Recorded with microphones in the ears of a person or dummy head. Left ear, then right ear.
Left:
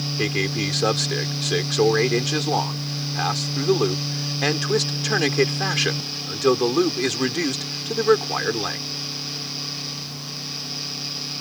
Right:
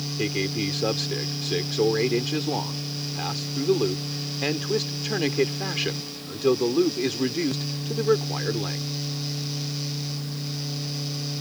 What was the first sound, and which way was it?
A man speaking, 45° left (ahead or behind).